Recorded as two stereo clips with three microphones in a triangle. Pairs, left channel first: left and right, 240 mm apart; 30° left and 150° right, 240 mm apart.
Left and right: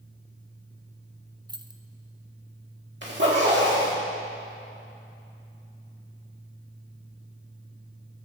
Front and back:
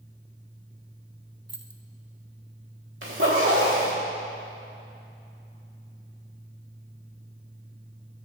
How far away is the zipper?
About 2 m.